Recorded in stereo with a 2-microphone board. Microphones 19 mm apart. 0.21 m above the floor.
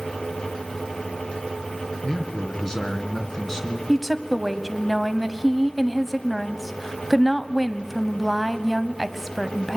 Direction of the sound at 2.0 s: 25° left (ahead or behind).